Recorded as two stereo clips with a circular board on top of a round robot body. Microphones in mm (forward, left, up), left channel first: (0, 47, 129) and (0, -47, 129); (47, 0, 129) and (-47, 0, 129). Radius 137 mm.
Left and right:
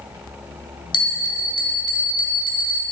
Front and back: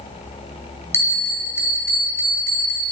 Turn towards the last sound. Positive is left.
turn(degrees=60)